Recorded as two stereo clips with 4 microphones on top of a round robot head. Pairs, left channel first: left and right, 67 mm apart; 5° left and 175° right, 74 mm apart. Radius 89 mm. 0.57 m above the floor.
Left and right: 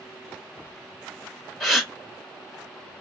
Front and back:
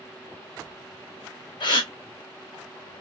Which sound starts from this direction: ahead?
A gasp, at 1.6 s.